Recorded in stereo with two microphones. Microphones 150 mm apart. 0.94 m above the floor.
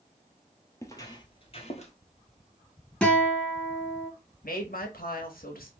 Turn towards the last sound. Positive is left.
turn(degrees=75)  # may be behind; listen again after turning